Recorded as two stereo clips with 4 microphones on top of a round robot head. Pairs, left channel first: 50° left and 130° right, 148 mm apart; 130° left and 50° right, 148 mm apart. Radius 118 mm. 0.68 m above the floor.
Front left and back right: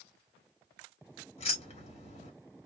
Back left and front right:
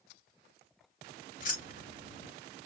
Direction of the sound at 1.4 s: 100° left.